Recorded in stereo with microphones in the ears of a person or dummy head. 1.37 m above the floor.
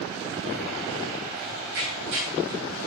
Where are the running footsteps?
70° right (ahead or behind), 3.5 m; by 2.8 s 50° right (ahead or behind), 2.5 m.